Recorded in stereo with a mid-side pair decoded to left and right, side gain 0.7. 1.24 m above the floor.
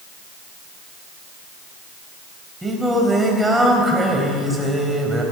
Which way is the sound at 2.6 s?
10° right.